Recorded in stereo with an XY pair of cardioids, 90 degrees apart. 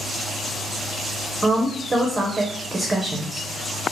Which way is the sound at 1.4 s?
25° right.